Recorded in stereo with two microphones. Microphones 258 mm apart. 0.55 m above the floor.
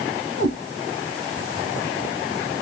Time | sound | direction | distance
0.4 | a cat meowing | 65° right (ahead or behind) | 2 m